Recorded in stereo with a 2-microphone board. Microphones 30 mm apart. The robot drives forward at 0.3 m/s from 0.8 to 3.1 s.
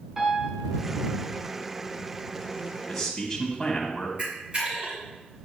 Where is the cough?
I don't hear a cough.